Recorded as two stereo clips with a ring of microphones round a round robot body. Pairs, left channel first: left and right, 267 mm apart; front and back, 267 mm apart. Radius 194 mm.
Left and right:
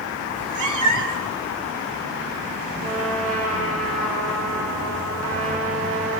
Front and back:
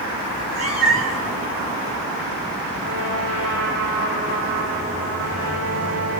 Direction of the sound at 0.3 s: 90° right.